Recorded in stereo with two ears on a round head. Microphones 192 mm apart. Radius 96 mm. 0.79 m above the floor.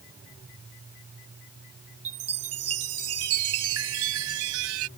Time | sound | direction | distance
2.0 | a chime | 75° right (ahead or behind) | ?